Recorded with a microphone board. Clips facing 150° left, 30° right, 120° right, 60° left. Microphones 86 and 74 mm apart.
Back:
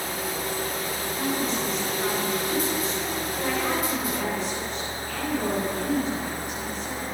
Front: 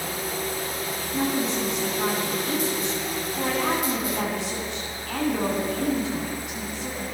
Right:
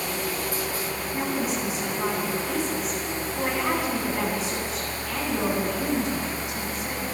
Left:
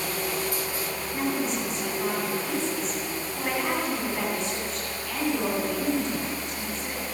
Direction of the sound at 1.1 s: 35° right.